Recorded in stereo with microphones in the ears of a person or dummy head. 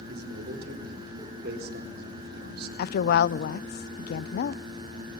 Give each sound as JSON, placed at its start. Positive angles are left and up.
{"t": 0.1, "sound": "a man speaking", "side_deg": -65, "distance_m": 4.0}
{"t": 2.8, "sound": "a woman speaking", "side_deg": 60, "distance_m": 0.6}